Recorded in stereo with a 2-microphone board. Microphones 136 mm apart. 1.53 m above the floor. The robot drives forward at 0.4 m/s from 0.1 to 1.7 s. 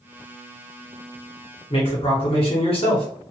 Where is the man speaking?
45° left (ahead or behind), 1.0 m.